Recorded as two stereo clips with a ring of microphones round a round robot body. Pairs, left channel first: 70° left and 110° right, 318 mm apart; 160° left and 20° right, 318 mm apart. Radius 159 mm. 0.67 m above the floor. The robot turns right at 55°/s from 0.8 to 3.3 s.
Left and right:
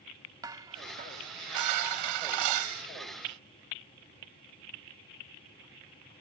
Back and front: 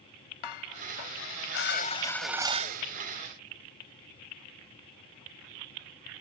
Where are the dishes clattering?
170° left; by 2.8 s 80° right.